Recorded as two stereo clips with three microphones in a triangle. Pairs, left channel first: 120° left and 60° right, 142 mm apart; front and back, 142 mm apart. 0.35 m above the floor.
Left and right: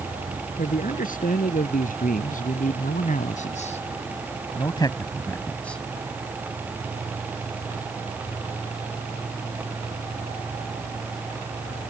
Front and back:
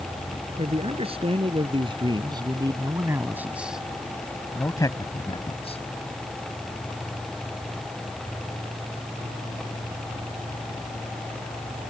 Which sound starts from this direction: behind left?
A man speaking, at 0.6 s.